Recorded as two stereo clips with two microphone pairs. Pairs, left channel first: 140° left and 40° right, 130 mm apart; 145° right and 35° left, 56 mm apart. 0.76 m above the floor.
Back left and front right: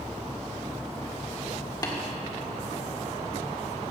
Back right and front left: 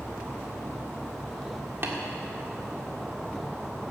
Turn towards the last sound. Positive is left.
turn(degrees=80)